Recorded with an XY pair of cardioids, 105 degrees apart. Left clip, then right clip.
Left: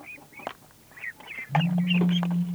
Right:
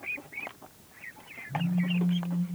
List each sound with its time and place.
1.5 s a phone buzzing: 30° left, 0.8 m